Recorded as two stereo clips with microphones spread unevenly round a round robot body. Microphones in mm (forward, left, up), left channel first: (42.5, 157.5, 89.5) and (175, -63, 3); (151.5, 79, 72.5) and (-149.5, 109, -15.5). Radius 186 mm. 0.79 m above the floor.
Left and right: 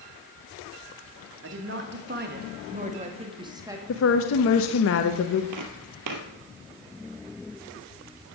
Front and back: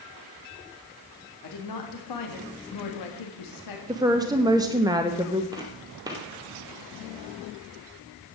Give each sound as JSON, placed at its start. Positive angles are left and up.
{"t": 1.4, "sound": "a woman speaking", "azimuth_deg": -55, "distance_m": 2.0}
{"t": 3.9, "sound": "a woman speaking", "azimuth_deg": 140, "distance_m": 0.9}
{"t": 5.5, "sound": "footsteps", "azimuth_deg": -95, "distance_m": 1.1}